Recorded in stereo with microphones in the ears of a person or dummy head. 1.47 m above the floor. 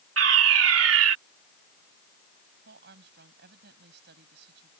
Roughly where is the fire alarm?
Right.